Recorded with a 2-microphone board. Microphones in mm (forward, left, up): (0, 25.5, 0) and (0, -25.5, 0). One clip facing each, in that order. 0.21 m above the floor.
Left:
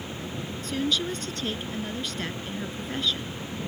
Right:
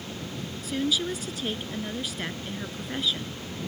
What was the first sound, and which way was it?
A woman speaking, 5° right (ahead or behind).